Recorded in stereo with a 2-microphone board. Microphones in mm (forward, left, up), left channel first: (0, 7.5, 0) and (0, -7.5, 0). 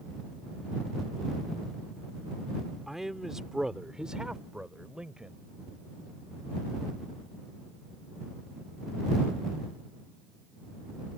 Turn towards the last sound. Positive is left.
turn(degrees=-75)  # may be behind; listen again after turning